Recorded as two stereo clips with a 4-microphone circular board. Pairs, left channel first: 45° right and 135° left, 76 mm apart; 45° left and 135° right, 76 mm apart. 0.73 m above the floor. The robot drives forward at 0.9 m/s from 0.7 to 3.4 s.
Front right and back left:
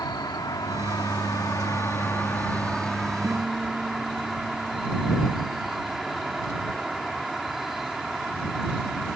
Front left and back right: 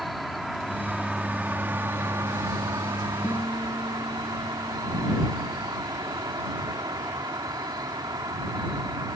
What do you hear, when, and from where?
0.0 s an insect: 45° right; by 9.2 s 140° right
3.2 s a guitar: 85° left